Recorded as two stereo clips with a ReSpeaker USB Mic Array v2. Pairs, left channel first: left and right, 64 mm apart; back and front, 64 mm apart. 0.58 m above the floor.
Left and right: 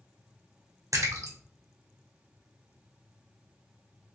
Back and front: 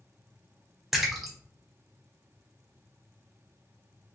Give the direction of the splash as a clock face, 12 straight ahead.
3 o'clock.